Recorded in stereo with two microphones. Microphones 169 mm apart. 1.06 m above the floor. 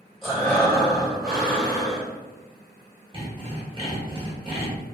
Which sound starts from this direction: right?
Sawing, at 3.1 s.